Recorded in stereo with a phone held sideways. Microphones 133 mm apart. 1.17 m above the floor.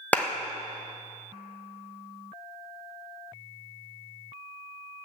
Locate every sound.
0.1 s a clap: 10° left (ahead or behind), 0.7 m